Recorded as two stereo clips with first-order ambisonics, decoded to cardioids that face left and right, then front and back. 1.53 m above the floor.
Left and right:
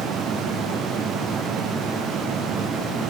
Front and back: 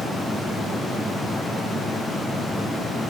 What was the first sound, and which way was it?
Only background noise.